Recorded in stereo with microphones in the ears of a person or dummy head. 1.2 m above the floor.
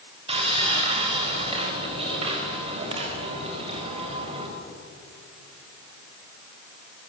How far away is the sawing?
About 4 m.